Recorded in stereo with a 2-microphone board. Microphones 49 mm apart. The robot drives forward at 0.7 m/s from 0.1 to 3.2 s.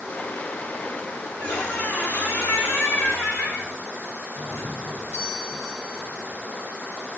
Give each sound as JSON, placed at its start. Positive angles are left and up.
{"t": 1.4, "sound": "a squeak", "side_deg": 45, "distance_m": 4.0}
{"t": 4.3, "sound": "a doorbell", "side_deg": 55, "distance_m": 4.0}